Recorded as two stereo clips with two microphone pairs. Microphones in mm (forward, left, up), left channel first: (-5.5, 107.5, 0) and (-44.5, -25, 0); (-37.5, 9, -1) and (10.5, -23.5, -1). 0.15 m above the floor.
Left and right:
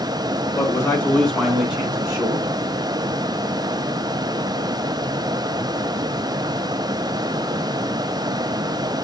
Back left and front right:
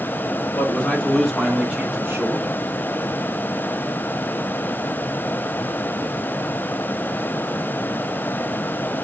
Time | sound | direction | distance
0.6 | a man speaking | 120° left | 1.7 m